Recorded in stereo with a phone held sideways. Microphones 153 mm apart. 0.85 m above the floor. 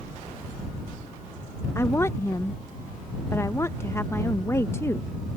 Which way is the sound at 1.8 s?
15° left (ahead or behind).